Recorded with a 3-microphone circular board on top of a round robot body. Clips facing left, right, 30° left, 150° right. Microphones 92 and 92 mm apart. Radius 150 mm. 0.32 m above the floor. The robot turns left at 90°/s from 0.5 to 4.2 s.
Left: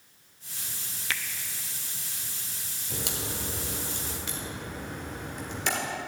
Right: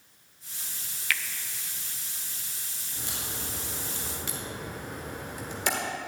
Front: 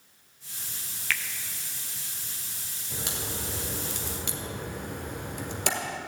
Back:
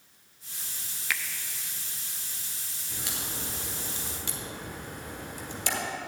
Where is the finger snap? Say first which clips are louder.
Right 2 dB, front 1 dB; 140° left, 0.8 m; by 1.2 s 125° left, 0.8 m.